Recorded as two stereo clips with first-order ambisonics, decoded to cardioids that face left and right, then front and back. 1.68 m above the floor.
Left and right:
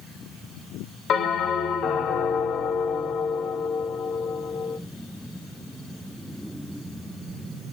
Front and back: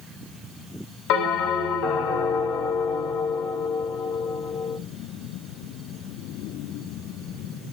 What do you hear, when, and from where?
1.1 s a bell: 35° left, 4 m